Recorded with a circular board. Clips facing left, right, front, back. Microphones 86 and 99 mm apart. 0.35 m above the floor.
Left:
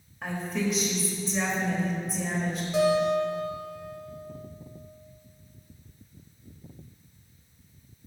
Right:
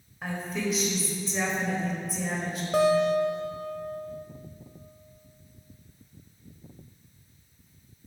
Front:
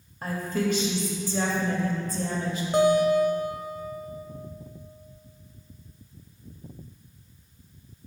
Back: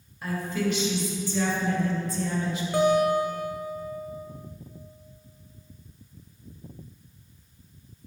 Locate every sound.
0.2 s a woman speaking: straight ahead, 1.2 m
2.7 s a guitar: 65° right, 0.6 m